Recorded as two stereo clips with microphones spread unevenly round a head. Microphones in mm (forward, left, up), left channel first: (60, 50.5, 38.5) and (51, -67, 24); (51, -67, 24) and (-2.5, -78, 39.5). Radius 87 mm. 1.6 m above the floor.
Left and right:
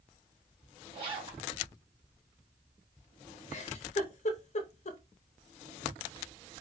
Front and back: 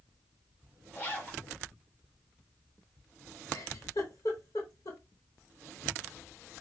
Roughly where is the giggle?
Ahead left.